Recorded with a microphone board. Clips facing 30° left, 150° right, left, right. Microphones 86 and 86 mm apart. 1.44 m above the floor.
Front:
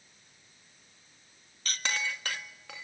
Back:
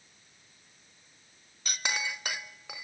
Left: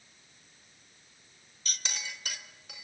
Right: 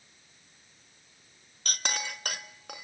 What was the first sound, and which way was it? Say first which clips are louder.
A clink: even, right 7 dB; 75° right.